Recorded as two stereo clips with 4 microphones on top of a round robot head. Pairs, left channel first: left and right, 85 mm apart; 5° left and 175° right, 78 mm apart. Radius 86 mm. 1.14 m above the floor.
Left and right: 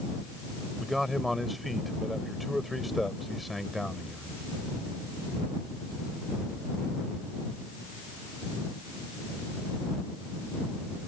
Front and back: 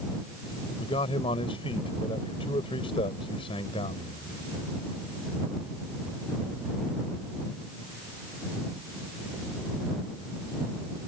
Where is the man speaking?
Straight ahead.